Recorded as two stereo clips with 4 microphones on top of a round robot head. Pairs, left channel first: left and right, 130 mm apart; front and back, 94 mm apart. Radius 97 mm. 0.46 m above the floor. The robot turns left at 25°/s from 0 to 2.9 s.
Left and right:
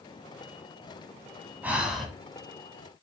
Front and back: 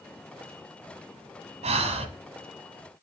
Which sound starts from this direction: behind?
Breathing, at 1.6 s.